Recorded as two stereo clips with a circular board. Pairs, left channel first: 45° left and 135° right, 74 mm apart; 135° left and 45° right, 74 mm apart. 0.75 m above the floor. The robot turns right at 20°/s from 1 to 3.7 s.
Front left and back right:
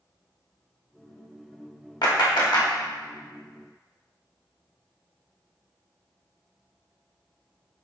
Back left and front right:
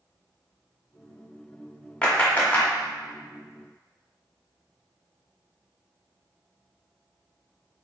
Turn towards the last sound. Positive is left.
turn(degrees=90)